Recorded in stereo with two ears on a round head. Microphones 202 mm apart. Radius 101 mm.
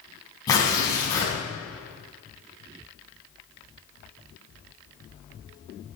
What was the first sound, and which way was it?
Tearing paper, 15° left (ahead or behind).